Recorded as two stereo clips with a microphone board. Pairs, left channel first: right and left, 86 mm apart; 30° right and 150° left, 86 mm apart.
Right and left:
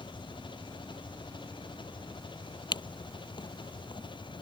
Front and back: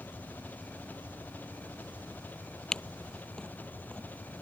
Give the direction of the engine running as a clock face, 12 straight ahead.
3 o'clock.